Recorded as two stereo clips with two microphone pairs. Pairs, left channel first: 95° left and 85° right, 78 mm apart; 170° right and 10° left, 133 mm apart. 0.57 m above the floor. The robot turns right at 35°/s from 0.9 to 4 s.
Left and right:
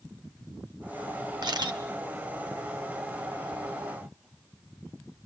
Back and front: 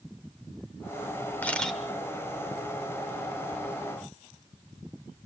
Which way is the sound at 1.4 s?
95° right.